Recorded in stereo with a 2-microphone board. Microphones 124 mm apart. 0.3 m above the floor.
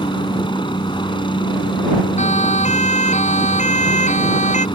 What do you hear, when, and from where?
0.0 s a helicopter: 40° left (ahead or behind)
2.2 s a siren: 70° left (ahead or behind); by 4.7 s 75° left (ahead or behind)